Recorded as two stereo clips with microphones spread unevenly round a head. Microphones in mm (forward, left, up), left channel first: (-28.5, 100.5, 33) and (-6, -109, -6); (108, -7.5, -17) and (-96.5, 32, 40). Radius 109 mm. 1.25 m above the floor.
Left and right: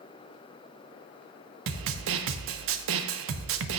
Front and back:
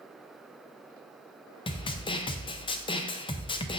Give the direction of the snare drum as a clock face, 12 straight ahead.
2 o'clock.